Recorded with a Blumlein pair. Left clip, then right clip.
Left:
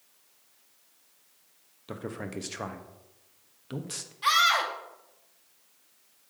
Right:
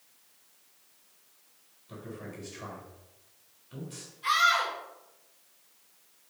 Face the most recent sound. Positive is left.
turn(degrees=50)